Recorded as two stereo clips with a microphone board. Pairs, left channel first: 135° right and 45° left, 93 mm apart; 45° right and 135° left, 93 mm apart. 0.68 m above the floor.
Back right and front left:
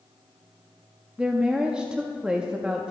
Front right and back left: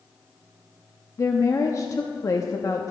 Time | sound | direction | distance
1.2 | a woman speaking | 30° right | 0.6 m